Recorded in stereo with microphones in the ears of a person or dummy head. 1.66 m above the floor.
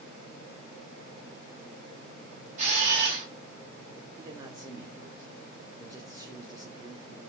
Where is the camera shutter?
45° right (ahead or behind), 1.9 m.